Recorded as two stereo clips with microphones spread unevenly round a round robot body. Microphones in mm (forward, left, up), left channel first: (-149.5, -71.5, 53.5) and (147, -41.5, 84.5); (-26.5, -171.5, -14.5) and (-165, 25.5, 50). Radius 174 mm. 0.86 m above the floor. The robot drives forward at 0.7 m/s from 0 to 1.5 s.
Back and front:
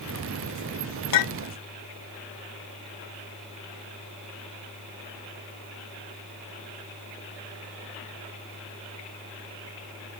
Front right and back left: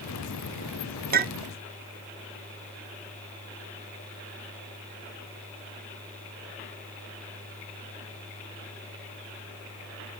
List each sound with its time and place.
1.1 s a clink: straight behind, 0.9 m